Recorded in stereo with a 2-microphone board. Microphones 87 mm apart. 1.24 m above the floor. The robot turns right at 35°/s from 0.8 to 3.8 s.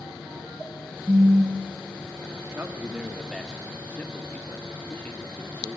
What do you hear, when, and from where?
1.1 s a phone buzzing: 35° right (ahead or behind), 0.8 m; by 2.4 s 5° left (ahead or behind), 0.8 m
2.5 s a man speaking: 30° right, 2.5 m; by 5.8 s 15° left, 2.5 m